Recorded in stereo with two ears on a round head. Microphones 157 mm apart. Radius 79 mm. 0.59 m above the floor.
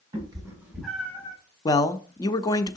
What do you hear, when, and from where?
0.1 s a cat meowing: 25° right (ahead or behind), 2.5 m; by 1.4 s 25° left (ahead or behind), 1.8 m
1.6 s a man speaking: 20° left (ahead or behind), 0.6 m